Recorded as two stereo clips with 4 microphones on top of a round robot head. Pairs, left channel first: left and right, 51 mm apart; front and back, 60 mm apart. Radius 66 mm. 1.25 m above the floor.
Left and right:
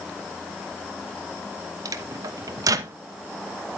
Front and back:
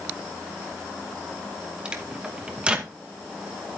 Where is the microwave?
100° right, 1.0 m.